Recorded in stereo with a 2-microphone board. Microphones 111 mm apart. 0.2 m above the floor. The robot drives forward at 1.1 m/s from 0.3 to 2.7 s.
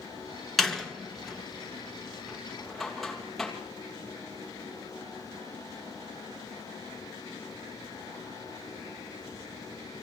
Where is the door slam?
Centre (ahead or behind), 1.5 m.